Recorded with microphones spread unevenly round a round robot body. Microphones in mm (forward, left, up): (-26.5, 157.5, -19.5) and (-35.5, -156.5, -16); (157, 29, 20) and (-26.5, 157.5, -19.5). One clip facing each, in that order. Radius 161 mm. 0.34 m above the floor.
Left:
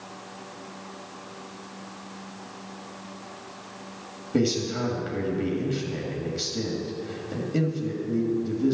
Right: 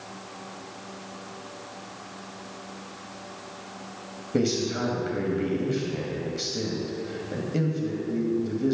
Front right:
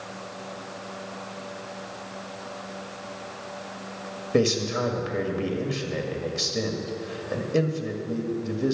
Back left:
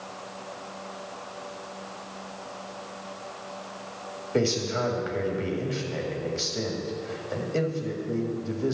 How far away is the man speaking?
About 2.0 m.